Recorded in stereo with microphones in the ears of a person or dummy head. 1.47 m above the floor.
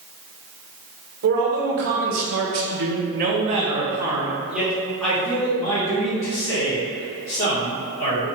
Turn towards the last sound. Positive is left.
turn(degrees=25)  # may be behind; listen again after turning